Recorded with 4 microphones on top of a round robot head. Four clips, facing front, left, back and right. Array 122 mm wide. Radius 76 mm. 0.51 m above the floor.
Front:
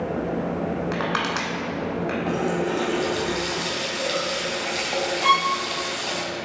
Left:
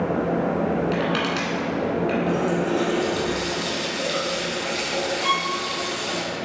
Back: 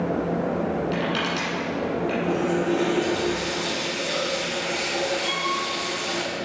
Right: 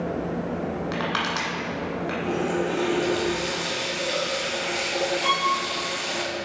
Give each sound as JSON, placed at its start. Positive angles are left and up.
{"t": 0.9, "sound": "crushing", "azimuth_deg": -35, "distance_m": 1.1}
{"t": 2.3, "sound": "a running tap", "azimuth_deg": 10, "distance_m": 2.5}
{"t": 5.2, "sound": "a violin", "azimuth_deg": -10, "distance_m": 0.6}